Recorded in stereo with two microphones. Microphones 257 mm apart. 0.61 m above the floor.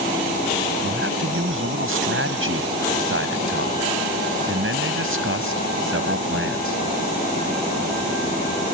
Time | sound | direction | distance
0.8 | a man speaking | 55° right (ahead or behind) | ?